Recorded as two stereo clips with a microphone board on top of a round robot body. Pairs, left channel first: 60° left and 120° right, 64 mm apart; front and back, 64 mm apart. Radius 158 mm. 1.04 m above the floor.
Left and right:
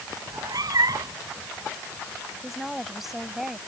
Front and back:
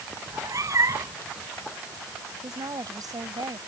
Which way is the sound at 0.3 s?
140° right.